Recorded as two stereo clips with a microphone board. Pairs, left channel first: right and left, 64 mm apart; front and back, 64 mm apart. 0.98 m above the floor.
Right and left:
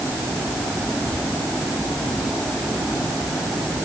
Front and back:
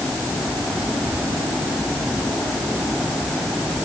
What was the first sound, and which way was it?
Only background noise.